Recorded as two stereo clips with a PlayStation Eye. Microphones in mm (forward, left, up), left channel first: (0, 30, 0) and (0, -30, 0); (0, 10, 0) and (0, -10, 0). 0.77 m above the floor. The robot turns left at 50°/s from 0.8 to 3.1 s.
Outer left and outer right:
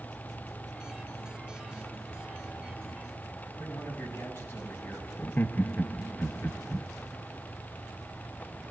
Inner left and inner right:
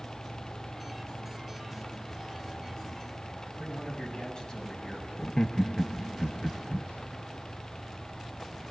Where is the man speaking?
45° left (ahead or behind), 7 m.